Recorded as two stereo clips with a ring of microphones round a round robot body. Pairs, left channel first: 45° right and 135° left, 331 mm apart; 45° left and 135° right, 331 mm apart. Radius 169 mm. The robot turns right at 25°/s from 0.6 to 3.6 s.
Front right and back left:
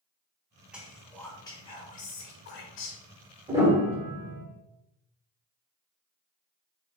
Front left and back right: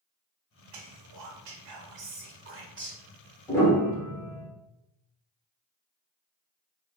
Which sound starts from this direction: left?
A piano, at 3.5 s.